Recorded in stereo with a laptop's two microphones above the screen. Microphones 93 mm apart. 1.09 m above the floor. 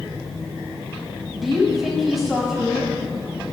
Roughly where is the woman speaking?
Centre.